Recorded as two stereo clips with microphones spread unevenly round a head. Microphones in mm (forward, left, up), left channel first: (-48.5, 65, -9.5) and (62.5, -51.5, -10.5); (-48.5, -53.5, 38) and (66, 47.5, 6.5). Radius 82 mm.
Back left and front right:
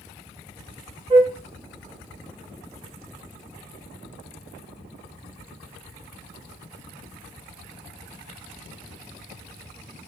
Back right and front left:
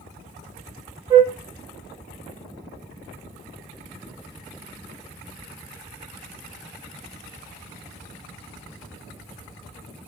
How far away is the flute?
About 1.0 m.